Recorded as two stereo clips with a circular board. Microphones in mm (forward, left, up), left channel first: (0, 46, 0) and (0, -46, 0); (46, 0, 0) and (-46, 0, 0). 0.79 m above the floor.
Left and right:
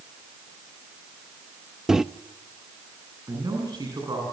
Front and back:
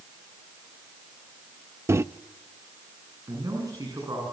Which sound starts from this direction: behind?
A microwave, at 1.9 s.